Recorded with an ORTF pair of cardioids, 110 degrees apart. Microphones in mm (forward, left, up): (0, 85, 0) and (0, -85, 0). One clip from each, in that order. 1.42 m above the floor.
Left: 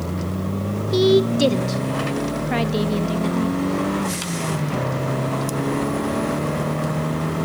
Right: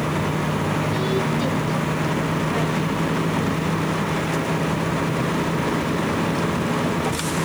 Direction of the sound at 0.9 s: 60° left.